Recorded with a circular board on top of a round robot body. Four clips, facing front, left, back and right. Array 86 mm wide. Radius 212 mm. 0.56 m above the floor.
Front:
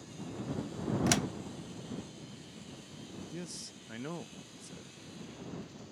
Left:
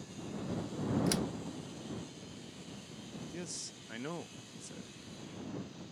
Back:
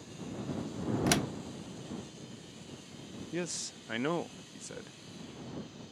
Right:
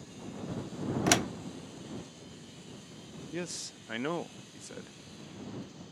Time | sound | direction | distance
1.1 | a door slam | 95° right | ?
3.3 | a man speaking | 140° right | ?